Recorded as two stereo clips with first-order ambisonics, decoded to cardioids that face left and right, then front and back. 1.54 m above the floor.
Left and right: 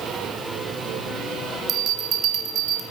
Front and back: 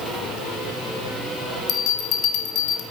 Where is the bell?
40° right, 0.8 m.